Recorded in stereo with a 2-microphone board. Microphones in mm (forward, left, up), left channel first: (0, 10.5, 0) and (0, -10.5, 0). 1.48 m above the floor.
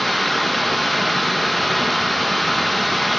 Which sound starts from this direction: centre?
Running water, at 0.0 s.